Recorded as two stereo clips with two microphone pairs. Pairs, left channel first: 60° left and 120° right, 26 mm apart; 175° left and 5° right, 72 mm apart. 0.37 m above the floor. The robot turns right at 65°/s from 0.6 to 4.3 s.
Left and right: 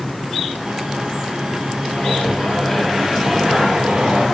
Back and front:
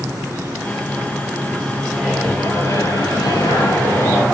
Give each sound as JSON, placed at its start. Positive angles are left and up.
{"t": 1.9, "sound": "a microwave", "azimuth_deg": 75, "distance_m": 8.5}